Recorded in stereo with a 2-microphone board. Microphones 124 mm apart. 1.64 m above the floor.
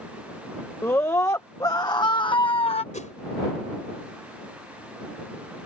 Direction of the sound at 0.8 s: 20° left (ahead or behind).